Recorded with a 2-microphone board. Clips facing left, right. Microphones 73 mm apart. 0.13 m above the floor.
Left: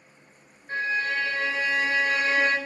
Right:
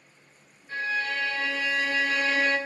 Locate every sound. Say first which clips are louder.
0.7 s a violin: left 2 dB; 45° left (ahead or behind), 1.0 m